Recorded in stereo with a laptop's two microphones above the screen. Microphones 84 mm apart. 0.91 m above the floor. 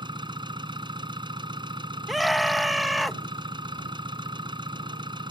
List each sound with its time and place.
0.0 s an engine running: 70° right (ahead or behind)
2.1 s a scream: centre (ahead or behind)